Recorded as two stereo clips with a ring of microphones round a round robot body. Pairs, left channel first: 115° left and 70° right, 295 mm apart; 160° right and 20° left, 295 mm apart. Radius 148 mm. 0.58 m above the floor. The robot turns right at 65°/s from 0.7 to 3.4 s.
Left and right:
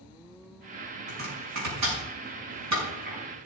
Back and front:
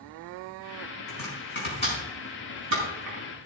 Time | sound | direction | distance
1.1 | chopping | 135° right | 5.5 m